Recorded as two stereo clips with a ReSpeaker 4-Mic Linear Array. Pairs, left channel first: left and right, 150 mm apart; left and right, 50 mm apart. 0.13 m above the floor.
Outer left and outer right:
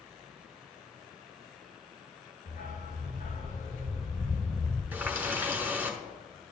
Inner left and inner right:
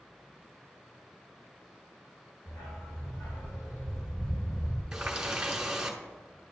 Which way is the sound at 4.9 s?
10° right (ahead or behind).